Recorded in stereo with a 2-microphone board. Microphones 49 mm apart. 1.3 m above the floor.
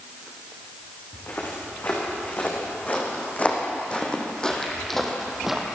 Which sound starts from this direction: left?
Footsteps, at 1.1 s.